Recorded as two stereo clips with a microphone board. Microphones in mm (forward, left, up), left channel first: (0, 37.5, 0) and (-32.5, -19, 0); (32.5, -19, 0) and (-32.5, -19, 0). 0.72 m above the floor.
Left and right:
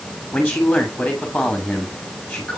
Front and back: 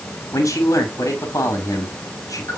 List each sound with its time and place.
0.3 s a man speaking: 20° right, 2.5 m